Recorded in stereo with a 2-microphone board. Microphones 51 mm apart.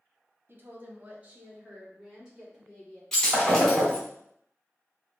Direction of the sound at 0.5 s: 45° right (ahead or behind).